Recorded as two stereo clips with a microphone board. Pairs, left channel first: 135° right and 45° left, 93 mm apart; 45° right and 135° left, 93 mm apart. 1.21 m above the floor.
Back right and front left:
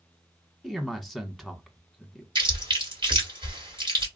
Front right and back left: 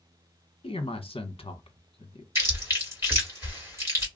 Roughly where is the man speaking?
Ahead right.